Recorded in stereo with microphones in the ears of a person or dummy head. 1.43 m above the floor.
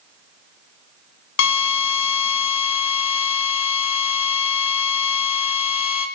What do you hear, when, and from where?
1.4 s a drill: 75° left (ahead or behind), 2.0 m